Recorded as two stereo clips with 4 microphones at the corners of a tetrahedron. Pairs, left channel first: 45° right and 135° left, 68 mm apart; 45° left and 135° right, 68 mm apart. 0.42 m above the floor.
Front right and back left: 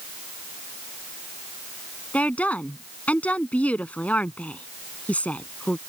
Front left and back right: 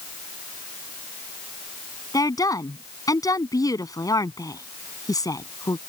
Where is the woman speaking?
25° left.